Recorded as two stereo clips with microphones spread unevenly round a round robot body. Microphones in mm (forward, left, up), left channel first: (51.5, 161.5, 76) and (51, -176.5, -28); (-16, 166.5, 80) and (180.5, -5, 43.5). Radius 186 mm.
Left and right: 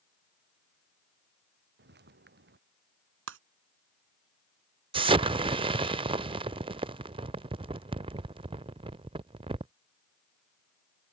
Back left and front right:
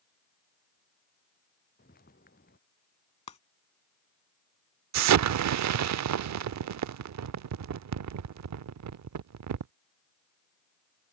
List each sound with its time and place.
1.8 s footsteps: 155° right
3.3 s breaking glass: 150° right
4.9 s an explosion: 15° right